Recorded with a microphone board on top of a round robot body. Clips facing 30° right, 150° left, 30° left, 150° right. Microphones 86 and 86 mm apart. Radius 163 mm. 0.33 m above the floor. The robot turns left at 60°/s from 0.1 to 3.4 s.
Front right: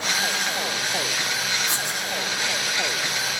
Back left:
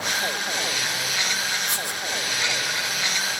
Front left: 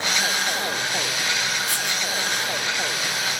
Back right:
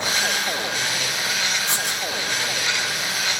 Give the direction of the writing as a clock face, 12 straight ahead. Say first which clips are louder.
Front right 1 dB, back right 1 dB; 3 o'clock.